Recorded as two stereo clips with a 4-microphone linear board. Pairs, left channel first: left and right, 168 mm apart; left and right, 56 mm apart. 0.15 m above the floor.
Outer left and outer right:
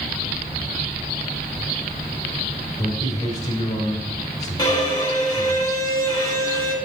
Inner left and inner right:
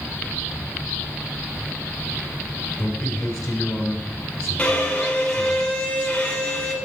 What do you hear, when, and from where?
2.8 s a man speaking: 25° left (ahead or behind), 1.3 m
4.6 s a violin: 20° left (ahead or behind), 1.4 m